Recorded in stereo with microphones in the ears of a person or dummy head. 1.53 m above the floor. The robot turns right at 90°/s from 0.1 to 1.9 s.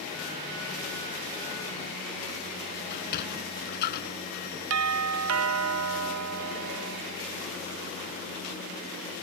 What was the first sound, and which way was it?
A sliding door, 50° left (ahead or behind).